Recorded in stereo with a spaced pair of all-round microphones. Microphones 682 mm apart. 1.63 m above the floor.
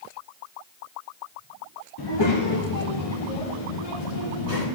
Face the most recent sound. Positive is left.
turn(degrees=50)  # may be behind; listen again after turning